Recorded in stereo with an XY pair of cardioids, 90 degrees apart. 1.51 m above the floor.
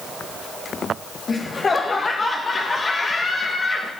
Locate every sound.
1.3 s laughter: 40° left, 1.7 m